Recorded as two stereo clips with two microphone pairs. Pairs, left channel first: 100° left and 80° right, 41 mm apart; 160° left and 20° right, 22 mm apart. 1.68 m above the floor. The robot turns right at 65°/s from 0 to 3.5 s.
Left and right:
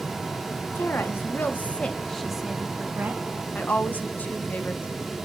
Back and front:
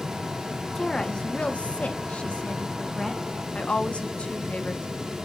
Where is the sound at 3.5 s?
140° left, 1.2 m.